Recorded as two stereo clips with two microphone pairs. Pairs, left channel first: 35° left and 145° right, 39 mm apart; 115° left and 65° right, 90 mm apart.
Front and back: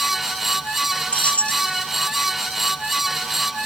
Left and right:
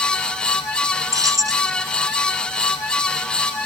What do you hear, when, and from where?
1.1 s keys jangling: 15° right